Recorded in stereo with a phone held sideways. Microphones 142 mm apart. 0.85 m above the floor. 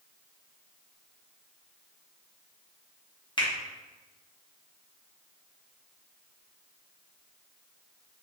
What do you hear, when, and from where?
3.4 s a finger snap: 35° left (ahead or behind), 0.9 m